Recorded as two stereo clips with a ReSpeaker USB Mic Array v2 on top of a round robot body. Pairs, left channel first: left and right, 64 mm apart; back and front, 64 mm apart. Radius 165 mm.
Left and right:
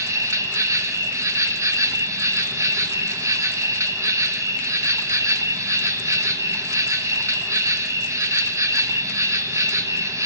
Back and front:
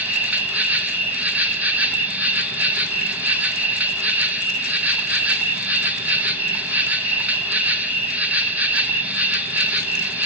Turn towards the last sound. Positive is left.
turn(degrees=-65)